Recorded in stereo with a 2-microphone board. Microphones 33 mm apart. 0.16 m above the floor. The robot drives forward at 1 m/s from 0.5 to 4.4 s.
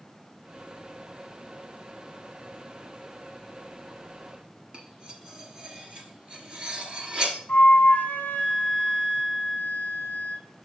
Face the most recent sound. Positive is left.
turn(degrees=50)  # may be behind; listen again after turning